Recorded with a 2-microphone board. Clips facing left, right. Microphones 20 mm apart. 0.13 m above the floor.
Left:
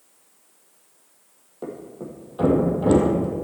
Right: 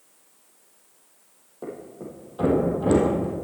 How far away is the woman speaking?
I don't hear a woman speaking.